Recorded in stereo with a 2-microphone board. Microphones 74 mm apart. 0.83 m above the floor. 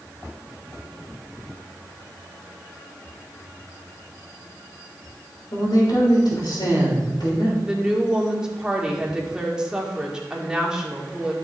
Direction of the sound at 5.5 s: 70° left (ahead or behind).